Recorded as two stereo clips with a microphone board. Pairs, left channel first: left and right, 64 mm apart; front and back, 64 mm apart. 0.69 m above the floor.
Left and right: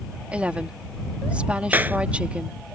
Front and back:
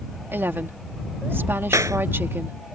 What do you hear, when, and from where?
0.3 s a woman speaking: 150° right
1.7 s a clap: 150° right